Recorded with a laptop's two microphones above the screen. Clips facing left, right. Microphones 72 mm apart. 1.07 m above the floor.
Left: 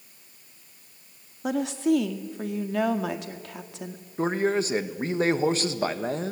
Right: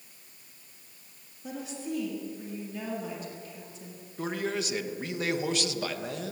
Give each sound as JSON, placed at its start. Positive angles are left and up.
{"t": 1.4, "sound": "a woman speaking", "side_deg": 80, "distance_m": 1.7}
{"t": 4.2, "sound": "a man speaking", "side_deg": 35, "distance_m": 1.5}